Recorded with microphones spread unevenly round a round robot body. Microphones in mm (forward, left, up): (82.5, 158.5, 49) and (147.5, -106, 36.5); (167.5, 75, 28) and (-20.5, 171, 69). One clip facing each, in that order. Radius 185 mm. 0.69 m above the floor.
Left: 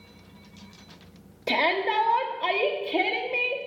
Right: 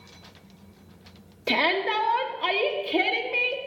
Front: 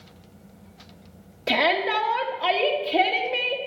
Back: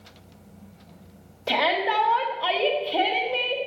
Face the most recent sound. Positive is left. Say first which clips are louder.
# right 1 dB, front 2 dB
turn(degrees=-20)